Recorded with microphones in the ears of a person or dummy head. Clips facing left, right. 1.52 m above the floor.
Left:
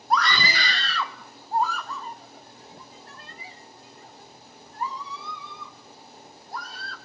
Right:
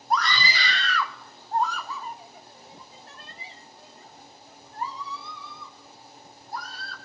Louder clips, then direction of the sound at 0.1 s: Left 2 dB; 60° left (ahead or behind).